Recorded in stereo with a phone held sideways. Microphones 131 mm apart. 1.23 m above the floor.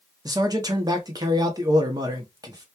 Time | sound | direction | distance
0.2 | a man speaking | 30° right (ahead or behind) | 0.7 m